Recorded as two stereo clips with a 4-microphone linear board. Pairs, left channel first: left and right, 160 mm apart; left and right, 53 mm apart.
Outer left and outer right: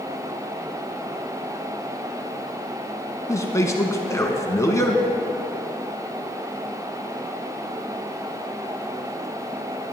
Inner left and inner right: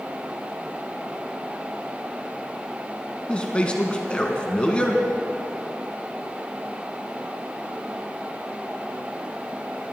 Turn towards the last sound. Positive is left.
turn(degrees=20)  # may be behind; listen again after turning